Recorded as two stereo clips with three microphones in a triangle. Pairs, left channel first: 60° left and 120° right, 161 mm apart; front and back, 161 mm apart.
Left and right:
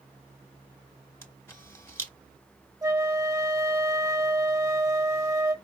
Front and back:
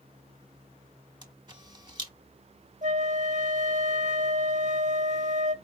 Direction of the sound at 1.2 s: 130° left.